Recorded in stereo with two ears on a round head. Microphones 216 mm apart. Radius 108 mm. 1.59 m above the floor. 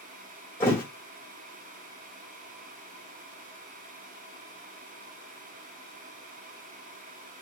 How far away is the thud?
About 1.3 m.